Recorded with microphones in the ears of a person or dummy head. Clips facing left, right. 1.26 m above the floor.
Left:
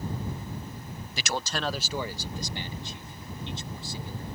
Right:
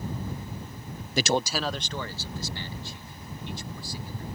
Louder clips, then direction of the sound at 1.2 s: Right 6 dB; 45° right (ahead or behind).